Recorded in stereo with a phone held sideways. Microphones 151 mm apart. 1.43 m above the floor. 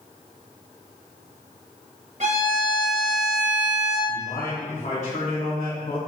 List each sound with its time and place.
2.2 s a violin: 50° right (ahead or behind), 1.1 m
4.1 s a man speaking: 55° left (ahead or behind), 1.1 m